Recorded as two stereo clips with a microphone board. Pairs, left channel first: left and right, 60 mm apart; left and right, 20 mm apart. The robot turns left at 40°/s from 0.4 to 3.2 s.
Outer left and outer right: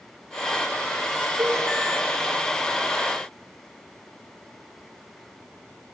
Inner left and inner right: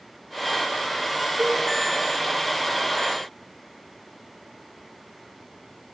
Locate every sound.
1.4 s a cowbell: 60° right (ahead or behind), 7 m; by 1.6 s 50° right (ahead or behind), 7 m